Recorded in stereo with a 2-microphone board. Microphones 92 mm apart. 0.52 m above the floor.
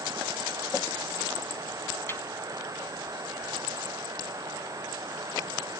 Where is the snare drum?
25° left (ahead or behind), 2 m.